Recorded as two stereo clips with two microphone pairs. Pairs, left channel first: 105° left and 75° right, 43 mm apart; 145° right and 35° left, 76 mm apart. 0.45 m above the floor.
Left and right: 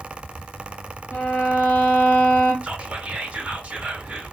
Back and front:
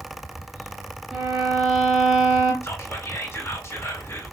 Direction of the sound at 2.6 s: 115° right.